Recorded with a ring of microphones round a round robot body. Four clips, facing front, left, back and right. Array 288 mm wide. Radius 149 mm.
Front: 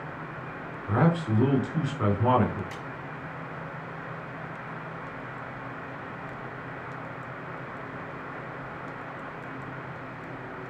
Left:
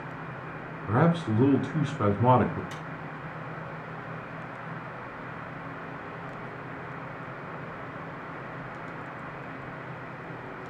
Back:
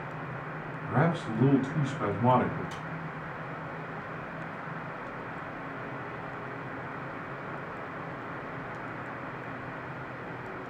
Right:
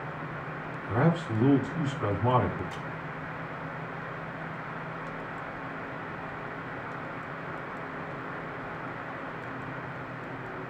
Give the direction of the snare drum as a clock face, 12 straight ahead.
9 o'clock.